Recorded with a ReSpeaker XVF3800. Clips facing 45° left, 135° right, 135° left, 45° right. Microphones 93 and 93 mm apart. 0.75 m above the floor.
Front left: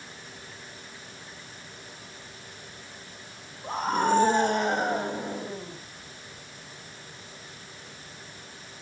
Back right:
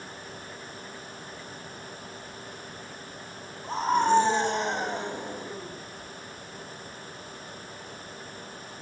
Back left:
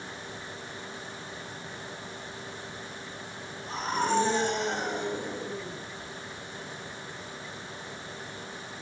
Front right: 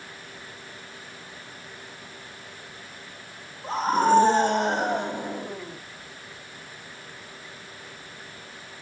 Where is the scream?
10° left, 3.5 m; by 5.8 s 5° right, 4.5 m.